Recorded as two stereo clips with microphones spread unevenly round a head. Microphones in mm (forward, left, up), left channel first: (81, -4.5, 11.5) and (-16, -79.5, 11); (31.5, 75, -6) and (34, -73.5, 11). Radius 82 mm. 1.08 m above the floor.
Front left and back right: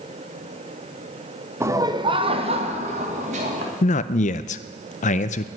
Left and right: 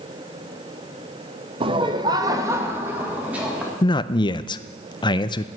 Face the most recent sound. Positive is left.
turn(degrees=40)